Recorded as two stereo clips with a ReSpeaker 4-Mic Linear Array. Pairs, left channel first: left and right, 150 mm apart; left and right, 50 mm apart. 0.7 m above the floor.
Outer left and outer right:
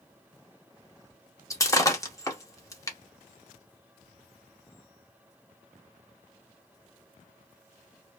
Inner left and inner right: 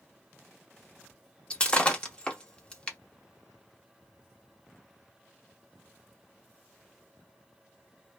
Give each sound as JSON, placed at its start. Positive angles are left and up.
{"t": 1.5, "sound": "breaking glass", "side_deg": 20, "distance_m": 0.7}